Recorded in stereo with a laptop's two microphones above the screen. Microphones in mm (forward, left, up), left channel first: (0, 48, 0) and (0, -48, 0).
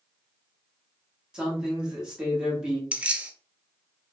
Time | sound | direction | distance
1.3 | a man speaking | 10° right (ahead or behind) | 1.1 m
2.9 | keys jangling | 10° right (ahead or behind) | 0.5 m